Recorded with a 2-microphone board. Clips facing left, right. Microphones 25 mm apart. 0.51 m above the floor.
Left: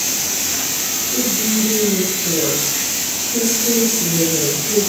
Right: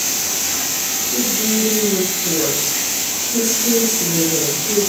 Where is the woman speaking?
75° right (ahead or behind), 4.5 m.